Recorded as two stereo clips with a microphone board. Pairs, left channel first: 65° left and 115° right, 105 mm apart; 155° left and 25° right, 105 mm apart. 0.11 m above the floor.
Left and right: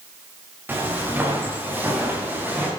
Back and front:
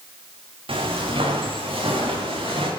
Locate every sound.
0.7 s footsteps: 45° right, 6.5 m; by 2.7 s 40° right, 7.5 m